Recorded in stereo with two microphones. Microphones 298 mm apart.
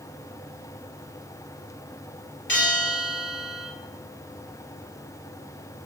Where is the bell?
35° left (ahead or behind), 2.5 m.